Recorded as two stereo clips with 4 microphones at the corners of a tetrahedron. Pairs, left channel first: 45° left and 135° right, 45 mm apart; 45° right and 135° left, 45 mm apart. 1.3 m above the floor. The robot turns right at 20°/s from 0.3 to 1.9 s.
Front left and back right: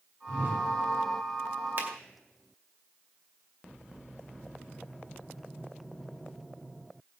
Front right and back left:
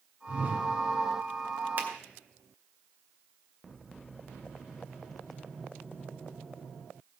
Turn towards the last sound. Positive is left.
turn(degrees=-175)